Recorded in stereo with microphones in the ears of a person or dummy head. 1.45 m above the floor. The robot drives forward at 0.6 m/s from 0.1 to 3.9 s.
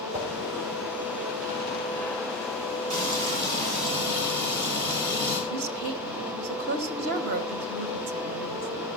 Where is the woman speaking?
55° right (ahead or behind), 1.1 m.